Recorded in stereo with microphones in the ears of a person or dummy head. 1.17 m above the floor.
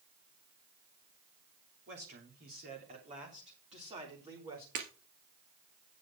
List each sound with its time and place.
1.9 s a man speaking: 50° right (ahead or behind), 3 m; by 4.7 s 20° right (ahead or behind), 3.5 m
4.8 s breaking glass: 50° right (ahead or behind), 2.5 m